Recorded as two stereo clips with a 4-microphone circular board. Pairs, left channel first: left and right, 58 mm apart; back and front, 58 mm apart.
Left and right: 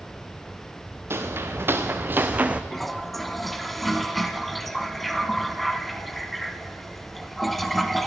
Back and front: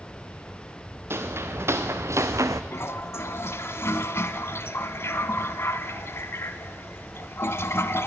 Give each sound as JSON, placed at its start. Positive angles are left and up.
{"t": 1.1, "sound": "footsteps", "azimuth_deg": -45, "distance_m": 1.6}
{"t": 2.7, "sound": "a toilet flushing", "azimuth_deg": 175, "distance_m": 0.6}